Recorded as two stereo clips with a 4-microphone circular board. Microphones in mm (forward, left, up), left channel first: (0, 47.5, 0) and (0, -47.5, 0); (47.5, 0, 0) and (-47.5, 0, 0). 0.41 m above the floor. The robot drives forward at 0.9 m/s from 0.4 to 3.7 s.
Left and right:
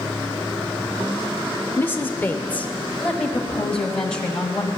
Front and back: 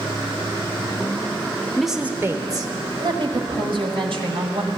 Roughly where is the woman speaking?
Left.